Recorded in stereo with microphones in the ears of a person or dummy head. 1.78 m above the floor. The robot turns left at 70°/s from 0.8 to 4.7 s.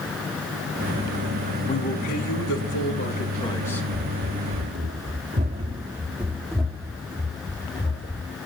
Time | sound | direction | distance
1.7 | a man speaking | 155° left | 4.5 m
3.9 | running footsteps | 20° right (ahead or behind) | 3 m